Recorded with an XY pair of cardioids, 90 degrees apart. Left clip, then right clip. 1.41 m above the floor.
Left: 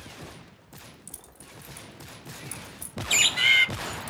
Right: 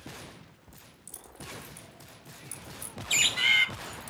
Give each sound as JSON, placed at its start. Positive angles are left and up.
{"t": 0.7, "sound": "keys jangling", "azimuth_deg": 25, "distance_m": 4.0}
{"t": 3.1, "sound": "a bird", "azimuth_deg": 25, "distance_m": 0.7}